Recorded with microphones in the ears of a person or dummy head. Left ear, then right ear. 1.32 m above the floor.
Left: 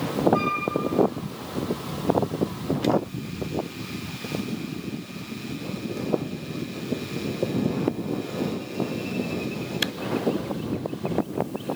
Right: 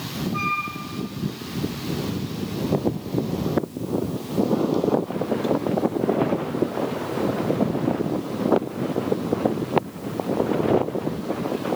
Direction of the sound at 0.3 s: 25° left (ahead or behind).